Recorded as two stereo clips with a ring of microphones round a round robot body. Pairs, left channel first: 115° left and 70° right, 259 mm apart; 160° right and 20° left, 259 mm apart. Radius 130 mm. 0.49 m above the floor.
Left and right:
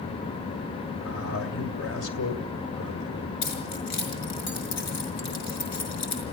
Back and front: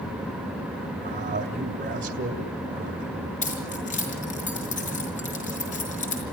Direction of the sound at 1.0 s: 80° left.